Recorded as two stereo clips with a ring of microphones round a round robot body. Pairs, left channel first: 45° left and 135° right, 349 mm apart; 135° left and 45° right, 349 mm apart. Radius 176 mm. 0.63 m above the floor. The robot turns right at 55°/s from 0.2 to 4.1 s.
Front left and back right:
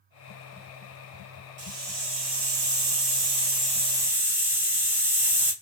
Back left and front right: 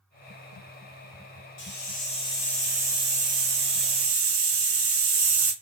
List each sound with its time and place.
1.6 s a hiss: 170° left, 1.2 m; by 5.5 s 55° right, 1.2 m